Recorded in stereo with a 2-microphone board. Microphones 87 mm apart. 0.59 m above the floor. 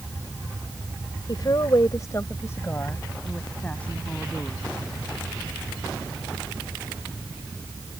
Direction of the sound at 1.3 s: 55° left (ahead or behind).